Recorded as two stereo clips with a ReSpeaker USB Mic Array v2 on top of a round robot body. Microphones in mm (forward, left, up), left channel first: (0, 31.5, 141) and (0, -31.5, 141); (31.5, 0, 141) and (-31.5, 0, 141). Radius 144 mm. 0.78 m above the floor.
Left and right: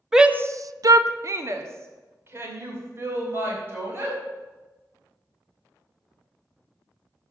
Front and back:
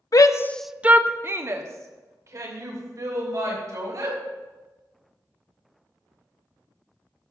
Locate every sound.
0.1 s a shout: 10° right, 0.8 m; by 4.2 s 145° right, 5.5 m